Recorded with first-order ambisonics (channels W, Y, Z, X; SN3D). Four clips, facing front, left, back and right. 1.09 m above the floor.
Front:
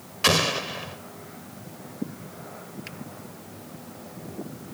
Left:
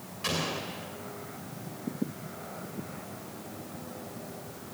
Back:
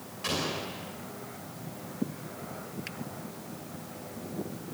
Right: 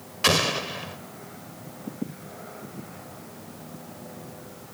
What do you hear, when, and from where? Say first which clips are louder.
0.2 s an explosion: right 10 dB, front 10 dB; 40° right, 2.5 m